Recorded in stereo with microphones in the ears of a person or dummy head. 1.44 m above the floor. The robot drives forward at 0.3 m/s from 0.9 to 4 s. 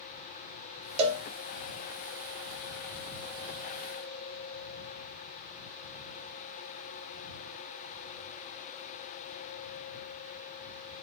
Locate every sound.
1.0 s a cowbell: 40° right (ahead or behind), 0.8 m